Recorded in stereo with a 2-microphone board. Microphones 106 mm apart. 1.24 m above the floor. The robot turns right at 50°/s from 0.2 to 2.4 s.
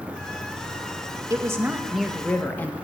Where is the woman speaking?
35° right, 1.8 m; by 2.7 s 20° left, 1.8 m.